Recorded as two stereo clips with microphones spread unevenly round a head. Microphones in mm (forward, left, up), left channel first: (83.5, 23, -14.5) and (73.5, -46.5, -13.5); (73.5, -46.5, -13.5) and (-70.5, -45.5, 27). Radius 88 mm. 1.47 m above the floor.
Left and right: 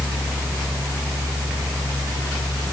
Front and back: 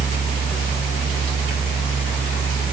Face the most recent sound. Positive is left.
turn(degrees=70)